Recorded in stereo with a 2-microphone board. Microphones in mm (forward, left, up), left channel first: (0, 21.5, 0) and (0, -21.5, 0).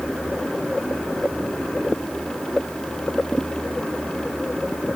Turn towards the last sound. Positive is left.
No sound to turn to.